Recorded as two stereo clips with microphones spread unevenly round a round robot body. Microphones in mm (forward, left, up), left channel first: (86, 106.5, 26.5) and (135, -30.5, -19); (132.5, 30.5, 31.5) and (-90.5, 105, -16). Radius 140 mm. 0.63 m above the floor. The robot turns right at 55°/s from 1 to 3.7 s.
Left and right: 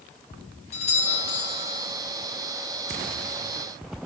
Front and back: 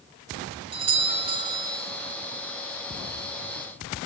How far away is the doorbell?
About 1.3 m.